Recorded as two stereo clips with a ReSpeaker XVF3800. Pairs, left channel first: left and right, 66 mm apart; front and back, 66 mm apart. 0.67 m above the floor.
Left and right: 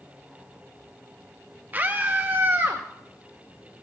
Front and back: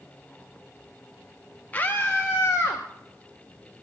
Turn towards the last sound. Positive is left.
turn(degrees=-35)